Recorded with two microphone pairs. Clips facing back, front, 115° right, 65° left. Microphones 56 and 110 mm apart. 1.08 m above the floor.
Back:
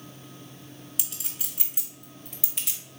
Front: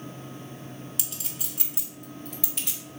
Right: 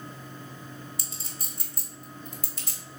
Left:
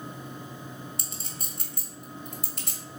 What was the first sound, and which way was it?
A clink, 90° left.